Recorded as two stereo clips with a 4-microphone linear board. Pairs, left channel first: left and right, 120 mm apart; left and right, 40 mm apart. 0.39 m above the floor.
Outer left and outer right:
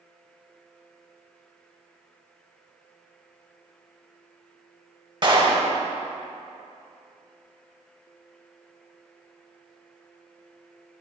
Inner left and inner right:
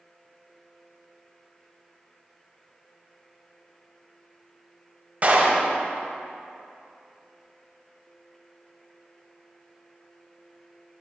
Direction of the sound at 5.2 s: 40° right (ahead or behind).